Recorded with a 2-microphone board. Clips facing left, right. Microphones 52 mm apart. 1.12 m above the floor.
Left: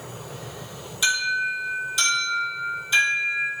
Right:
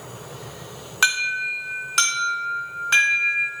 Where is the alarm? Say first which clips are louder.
Right 2 dB; 60° right (ahead or behind), 2.5 m.